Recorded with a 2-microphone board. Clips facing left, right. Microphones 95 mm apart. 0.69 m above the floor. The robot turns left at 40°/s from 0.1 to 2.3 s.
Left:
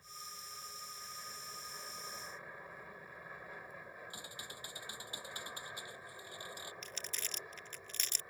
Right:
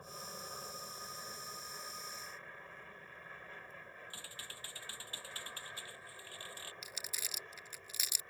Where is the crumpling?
10° right (ahead or behind).